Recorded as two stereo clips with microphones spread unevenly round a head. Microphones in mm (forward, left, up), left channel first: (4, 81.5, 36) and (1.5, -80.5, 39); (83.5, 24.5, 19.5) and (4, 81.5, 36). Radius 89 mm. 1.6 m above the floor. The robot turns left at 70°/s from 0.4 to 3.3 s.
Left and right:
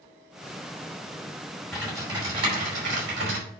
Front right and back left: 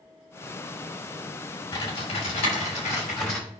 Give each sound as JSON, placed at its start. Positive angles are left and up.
{"t": 1.7, "sound": "typing on a keyboard", "azimuth_deg": 0, "distance_m": 5.0}